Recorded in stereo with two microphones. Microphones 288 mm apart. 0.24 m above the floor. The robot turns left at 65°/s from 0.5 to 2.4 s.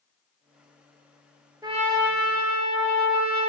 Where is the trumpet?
10° right, 0.7 m; by 3.5 s 65° right, 0.7 m.